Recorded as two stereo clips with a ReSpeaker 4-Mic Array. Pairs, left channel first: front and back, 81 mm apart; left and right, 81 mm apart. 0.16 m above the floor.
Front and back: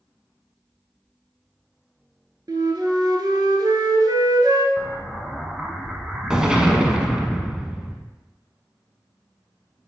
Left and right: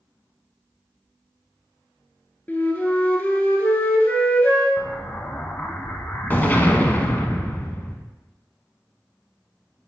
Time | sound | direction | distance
2.5 | a flute | 155° left | 0.9 m
4.8 | an explosion | 110° left | 0.7 m